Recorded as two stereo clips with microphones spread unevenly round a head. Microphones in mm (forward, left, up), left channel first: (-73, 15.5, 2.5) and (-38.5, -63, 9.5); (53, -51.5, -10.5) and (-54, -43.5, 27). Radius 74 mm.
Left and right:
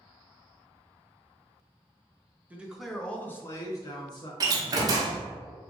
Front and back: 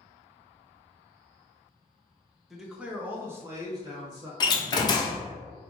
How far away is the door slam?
About 0.7 m.